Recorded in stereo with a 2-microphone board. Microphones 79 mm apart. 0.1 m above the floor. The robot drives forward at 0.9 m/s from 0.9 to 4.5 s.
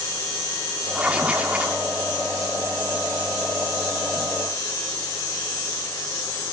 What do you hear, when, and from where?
0.9 s writing: 10° right (ahead or behind), 5.5 m; by 1.8 s 15° right (ahead or behind), 5 m